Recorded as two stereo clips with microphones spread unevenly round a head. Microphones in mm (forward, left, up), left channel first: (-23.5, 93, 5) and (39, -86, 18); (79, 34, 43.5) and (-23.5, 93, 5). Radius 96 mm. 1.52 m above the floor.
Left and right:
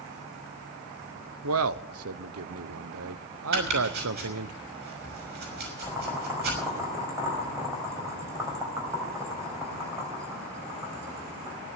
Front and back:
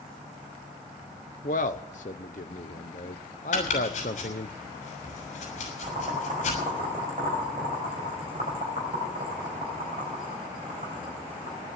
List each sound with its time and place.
1.4 s a man speaking: 75° right, 0.8 m
3.5 s chopping: 35° right, 6 m
5.8 s boiling: 145° right, 4 m